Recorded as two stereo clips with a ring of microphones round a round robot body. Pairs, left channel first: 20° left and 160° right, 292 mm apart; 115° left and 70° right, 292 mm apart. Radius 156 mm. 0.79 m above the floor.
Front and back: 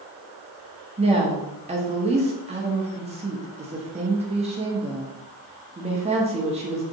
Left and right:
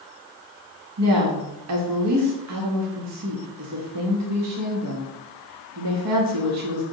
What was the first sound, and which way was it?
A woman speaking, 90° right.